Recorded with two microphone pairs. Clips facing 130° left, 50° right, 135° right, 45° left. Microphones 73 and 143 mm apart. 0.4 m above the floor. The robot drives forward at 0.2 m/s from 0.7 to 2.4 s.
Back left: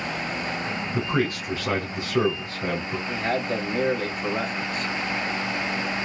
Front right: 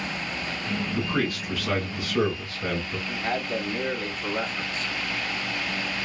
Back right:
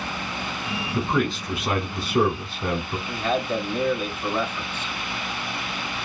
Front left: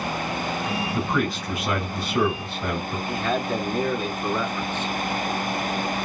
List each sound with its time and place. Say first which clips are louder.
0.9 s a man speaking: back left 3 dB, back right 4 dB; 175° left, 1.3 m
3.1 s a man speaking: back left 3 dB, back right 1 dB; 145° left, 1.9 m